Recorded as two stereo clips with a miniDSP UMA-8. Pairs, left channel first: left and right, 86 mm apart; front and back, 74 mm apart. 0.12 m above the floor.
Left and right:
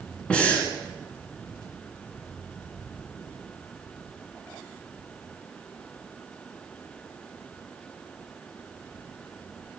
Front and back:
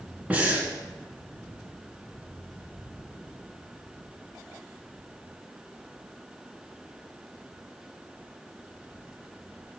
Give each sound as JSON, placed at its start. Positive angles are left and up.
{"t": 0.3, "sound": "breathing", "azimuth_deg": 145, "distance_m": 1.8}